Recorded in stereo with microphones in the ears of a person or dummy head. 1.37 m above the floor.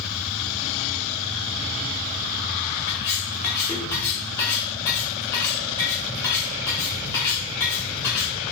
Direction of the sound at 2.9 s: 10° left (ahead or behind).